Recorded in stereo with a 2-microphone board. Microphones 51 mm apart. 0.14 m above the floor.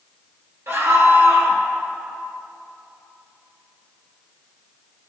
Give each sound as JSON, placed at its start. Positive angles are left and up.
{"t": 0.7, "sound": "a scream", "side_deg": -60, "distance_m": 2.5}